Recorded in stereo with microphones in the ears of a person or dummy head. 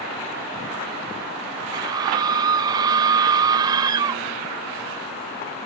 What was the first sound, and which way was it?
A scream, 25° right (ahead or behind).